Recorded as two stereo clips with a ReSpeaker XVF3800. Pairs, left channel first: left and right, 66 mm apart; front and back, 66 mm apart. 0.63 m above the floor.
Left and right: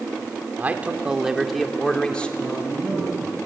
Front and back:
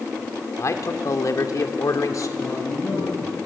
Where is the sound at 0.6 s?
30° right, 2 m; by 2.3 s 20° left, 2 m.